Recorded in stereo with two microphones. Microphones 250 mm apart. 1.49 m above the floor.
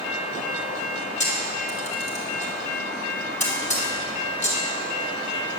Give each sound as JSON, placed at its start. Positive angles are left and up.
{"t": 1.2, "sound": "a camera shutter", "side_deg": 30, "distance_m": 4.0}